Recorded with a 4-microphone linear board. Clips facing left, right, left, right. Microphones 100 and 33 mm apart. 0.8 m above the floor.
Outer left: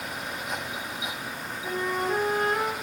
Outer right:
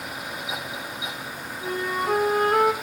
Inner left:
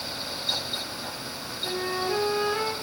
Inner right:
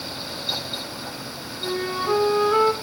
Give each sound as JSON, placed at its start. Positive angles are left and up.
{"t": 1.6, "sound": "a flute", "side_deg": -55, "distance_m": 8.0}